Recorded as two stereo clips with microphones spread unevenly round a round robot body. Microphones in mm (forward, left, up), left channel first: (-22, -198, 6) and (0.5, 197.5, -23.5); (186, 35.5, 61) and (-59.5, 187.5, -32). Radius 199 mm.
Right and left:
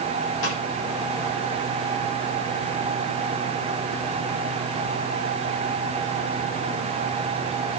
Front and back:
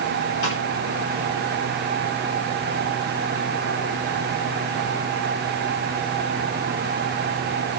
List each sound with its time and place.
0.4 s a snare drum: 60° right, 8.5 m